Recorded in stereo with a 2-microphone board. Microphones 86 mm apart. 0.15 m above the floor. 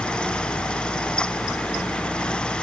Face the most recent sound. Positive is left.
No sound to turn to.